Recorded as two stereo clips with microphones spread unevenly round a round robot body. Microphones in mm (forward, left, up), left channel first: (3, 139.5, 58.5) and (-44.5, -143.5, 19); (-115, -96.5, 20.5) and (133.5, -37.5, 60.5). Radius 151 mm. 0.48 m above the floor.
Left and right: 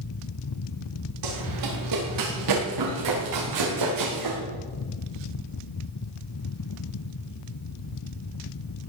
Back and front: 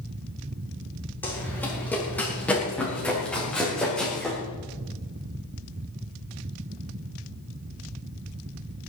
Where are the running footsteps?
85° right, 9 m; by 4.4 s 80° right, 7 m.